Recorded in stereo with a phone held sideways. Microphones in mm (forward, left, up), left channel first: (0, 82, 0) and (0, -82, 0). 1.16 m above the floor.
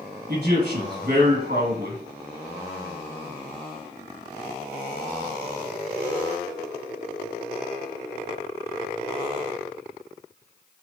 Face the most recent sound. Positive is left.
turn(degrees=-60)  # may be behind; listen again after turning